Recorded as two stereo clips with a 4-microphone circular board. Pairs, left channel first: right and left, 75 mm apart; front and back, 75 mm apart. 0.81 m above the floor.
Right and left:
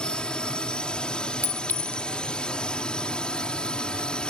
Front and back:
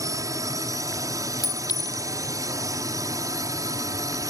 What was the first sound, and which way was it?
A drone, 165° right.